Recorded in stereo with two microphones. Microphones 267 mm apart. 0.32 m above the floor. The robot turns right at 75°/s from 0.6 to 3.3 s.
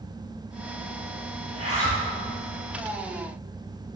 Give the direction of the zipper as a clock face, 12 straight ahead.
8 o'clock.